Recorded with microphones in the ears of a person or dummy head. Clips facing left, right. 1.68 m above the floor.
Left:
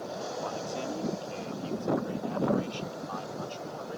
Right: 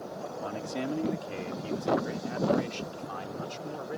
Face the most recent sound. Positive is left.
turn(degrees=-25)  # may be behind; listen again after turning